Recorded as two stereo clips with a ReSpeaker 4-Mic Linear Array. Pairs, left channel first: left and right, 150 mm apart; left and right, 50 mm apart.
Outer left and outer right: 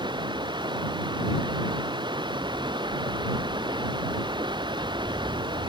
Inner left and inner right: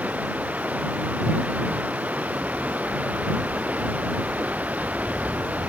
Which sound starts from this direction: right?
Running water, at 0.0 s.